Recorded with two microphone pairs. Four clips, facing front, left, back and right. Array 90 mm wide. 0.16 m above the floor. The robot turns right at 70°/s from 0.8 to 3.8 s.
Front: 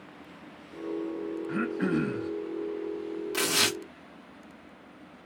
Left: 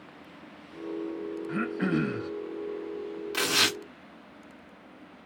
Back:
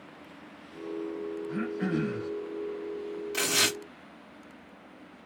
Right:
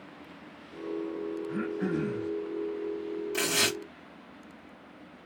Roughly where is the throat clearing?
Ahead left.